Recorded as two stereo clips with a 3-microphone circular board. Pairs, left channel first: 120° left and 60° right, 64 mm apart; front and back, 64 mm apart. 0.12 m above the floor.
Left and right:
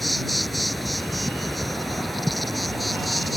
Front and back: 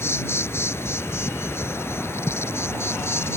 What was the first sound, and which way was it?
An insect, 30° left.